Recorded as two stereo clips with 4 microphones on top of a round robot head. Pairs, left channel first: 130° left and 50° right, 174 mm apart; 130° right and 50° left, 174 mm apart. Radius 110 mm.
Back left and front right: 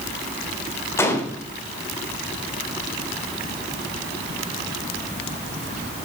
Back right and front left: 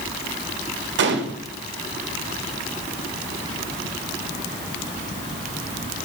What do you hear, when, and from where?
1.0 s a gunshot: 55° left, 1.4 m